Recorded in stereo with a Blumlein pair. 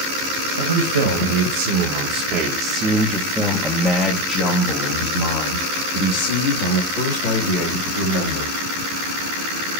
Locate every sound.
0.6 s a man speaking: 70° right, 1.8 m; by 8.6 s 65° left, 3 m